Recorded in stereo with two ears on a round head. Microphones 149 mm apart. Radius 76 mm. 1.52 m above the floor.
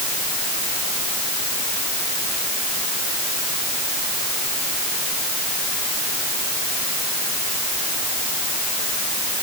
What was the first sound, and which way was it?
Only background noise.